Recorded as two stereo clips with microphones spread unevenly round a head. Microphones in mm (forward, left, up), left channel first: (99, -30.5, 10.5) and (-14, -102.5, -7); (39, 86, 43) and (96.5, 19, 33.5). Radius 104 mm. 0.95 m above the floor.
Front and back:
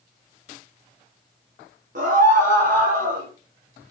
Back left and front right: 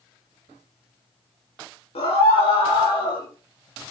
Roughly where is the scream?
Behind.